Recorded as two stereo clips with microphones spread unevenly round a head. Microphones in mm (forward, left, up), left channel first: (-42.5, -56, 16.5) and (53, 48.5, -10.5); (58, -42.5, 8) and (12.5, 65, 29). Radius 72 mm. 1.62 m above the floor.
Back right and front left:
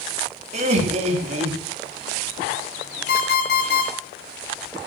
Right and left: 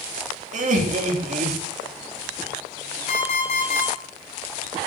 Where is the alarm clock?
110° right, 6.5 m.